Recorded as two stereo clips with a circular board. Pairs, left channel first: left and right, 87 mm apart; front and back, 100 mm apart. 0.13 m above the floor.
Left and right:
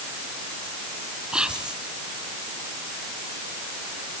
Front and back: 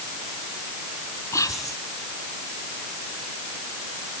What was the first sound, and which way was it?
Whispering, 20° right.